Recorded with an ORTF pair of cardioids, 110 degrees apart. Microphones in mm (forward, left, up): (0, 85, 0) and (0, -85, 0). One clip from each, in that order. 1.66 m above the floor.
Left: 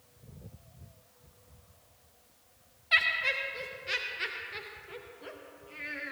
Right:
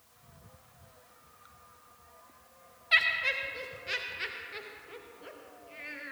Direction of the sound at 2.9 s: Straight ahead.